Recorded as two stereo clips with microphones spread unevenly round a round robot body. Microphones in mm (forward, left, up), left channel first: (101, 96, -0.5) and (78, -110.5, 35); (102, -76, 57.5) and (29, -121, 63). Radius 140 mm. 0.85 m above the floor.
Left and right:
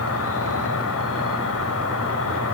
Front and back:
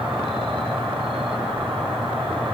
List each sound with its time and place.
0.0 s an insect: 125° left, 1.9 m